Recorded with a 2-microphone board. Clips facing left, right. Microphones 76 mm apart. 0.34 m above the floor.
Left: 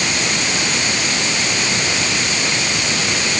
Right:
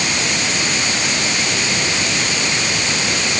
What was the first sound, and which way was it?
Only background noise.